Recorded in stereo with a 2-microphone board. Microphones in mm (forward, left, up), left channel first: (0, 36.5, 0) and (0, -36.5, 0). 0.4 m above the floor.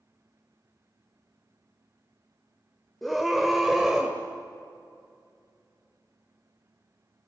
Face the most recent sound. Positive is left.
turn(degrees=-5)  # may be behind; listen again after turning